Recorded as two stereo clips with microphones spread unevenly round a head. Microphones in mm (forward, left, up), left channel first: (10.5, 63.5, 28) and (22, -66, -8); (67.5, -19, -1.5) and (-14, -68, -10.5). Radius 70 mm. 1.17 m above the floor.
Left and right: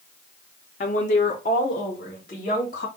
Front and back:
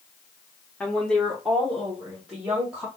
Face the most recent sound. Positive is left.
turn(degrees=130)